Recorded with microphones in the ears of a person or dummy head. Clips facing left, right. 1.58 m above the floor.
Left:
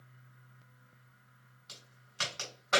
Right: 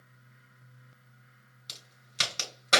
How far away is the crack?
About 2.5 m.